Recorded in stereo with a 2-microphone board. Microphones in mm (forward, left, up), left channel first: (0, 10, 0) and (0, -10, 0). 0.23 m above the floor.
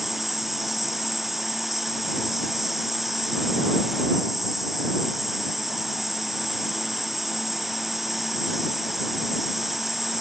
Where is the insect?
5° right (ahead or behind).